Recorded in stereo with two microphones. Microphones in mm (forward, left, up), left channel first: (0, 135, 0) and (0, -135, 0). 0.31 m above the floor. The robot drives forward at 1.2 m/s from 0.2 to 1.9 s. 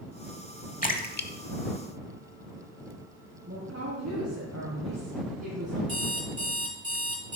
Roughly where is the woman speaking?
Right.